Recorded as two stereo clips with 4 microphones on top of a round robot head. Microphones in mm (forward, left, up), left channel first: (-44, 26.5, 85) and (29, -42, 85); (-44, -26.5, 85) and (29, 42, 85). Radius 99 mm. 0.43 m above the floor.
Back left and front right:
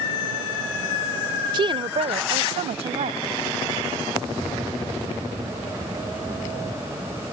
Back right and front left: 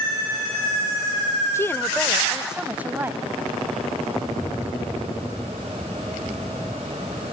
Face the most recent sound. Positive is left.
turn(degrees=-25)